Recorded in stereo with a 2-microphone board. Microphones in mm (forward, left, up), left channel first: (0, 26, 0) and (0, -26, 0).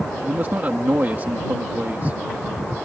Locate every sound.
0.2 s a man speaking: 40° right (ahead or behind)